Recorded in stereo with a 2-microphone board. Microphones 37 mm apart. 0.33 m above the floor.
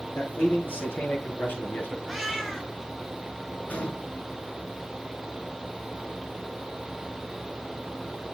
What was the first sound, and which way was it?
A man speaking, 65° left (ahead or behind).